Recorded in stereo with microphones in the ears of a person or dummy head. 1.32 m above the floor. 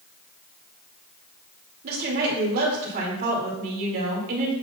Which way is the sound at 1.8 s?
45° right (ahead or behind).